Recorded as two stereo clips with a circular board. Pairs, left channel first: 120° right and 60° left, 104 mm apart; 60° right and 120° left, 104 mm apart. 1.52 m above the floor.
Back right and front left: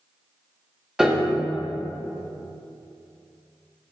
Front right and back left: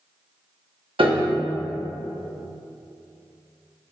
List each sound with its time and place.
1.0 s a piano: 145° left, 1.1 m